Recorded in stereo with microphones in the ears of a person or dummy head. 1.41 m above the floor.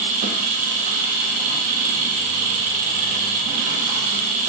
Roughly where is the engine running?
Right.